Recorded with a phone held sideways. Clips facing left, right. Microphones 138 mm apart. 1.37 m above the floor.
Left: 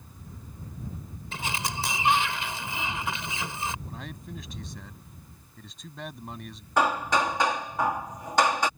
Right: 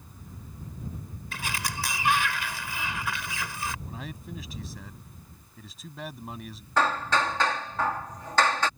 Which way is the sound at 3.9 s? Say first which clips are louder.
Right 1 dB; 5° right (ahead or behind).